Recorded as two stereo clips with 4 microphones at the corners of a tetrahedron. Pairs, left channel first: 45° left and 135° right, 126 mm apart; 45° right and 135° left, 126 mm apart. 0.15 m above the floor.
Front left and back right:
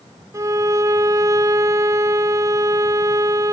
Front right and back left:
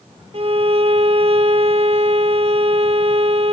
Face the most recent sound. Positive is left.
turn(degrees=160)